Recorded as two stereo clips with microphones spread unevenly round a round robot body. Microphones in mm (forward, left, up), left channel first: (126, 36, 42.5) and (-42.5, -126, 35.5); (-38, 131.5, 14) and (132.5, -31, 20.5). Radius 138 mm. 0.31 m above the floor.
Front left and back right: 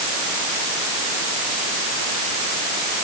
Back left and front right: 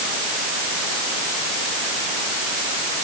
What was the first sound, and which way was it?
Only background noise.